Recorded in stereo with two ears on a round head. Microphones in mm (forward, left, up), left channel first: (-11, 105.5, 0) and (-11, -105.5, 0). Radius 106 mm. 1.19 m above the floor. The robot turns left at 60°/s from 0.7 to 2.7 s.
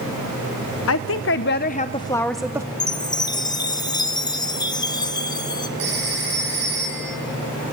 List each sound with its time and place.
0.9 s a woman speaking: 90° left, 0.5 m; by 2.7 s 20° right, 0.5 m
2.8 s a chime: 20° left (ahead or behind), 0.7 m
5.8 s a phone ringing: 50° right (ahead or behind), 9 m